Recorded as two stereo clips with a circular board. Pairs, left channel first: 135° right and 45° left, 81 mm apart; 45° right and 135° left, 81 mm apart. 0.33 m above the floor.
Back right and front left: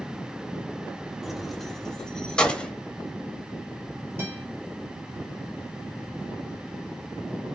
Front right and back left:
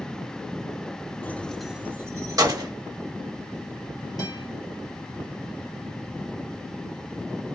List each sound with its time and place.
1.2 s keys jangling: 35° right, 0.7 m; by 2.7 s 150° left, 1.1 m
4.2 s a guitar: 10° right, 1.3 m